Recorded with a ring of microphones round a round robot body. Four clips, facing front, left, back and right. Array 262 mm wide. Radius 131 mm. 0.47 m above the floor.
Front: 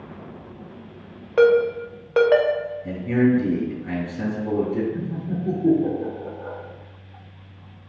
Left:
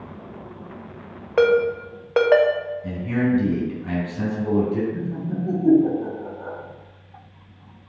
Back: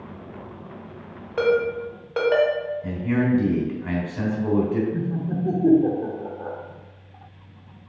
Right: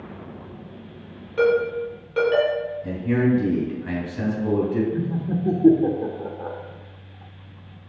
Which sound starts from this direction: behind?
A man speaking, at 2.8 s.